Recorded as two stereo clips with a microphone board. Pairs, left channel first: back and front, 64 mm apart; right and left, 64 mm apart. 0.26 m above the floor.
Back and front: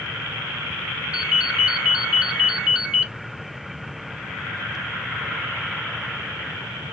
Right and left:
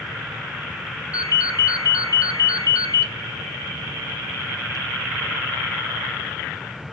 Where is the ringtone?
75° right, 1.0 m.